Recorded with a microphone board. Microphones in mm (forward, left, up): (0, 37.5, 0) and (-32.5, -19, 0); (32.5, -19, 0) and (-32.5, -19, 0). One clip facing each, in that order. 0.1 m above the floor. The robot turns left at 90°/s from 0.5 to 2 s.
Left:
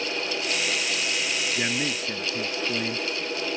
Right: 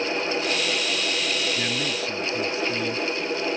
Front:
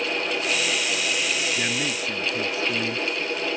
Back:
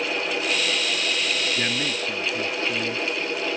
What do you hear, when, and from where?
1.6 s a man speaking: 115° left; by 3.1 s 75° left